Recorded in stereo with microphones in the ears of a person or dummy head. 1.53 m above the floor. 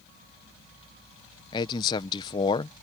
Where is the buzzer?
I don't hear a buzzer.